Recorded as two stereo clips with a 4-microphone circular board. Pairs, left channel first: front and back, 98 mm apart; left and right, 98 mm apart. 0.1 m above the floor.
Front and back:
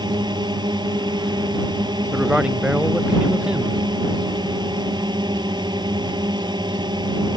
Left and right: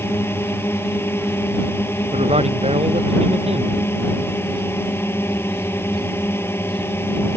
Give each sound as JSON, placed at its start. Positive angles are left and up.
{"t": 0.0, "sound": "a drone", "azimuth_deg": 150}
{"t": 2.1, "sound": "a man speaking", "azimuth_deg": -100}